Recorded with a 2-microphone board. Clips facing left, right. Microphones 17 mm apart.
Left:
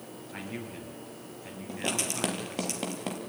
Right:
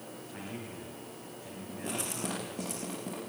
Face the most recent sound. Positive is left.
turn(degrees=80)